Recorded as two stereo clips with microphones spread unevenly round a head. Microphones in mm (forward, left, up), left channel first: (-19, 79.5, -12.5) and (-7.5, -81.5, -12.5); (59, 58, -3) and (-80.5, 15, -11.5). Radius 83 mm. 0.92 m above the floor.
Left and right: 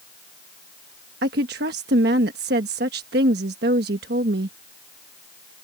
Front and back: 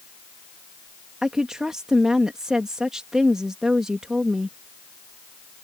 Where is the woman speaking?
80° right.